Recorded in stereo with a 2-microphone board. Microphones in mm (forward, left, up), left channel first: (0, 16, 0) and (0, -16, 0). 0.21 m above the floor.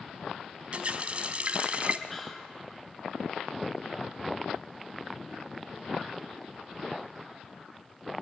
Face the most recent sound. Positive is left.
turn(degrees=10)  # may be behind; listen again after turning